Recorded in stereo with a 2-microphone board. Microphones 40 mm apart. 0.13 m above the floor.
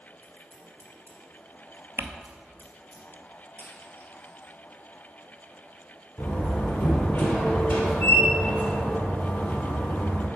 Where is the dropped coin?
45° left (ahead or behind), 1.3 m.